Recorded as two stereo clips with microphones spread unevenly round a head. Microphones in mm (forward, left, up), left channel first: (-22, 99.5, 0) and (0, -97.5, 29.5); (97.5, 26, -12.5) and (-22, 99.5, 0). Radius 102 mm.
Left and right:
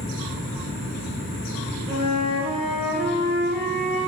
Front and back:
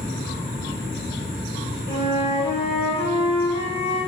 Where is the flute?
40° right, 1.4 m.